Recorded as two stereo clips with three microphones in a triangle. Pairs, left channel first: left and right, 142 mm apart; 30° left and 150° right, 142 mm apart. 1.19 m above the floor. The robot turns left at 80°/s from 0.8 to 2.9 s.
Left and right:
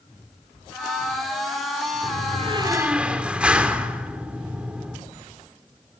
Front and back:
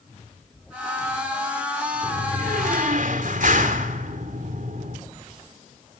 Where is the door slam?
105° right, 3 m; by 5.0 s 175° right, 3 m.